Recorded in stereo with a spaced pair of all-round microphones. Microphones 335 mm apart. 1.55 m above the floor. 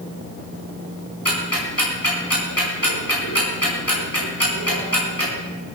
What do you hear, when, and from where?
1.2 s ticking: 85° left, 5 m